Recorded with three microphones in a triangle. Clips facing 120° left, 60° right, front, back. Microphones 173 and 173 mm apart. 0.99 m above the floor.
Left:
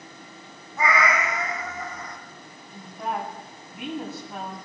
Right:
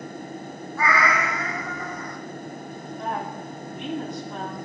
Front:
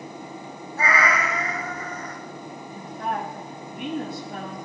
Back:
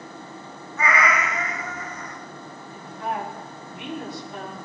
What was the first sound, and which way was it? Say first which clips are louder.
A cat meowing: even, even; 50° left.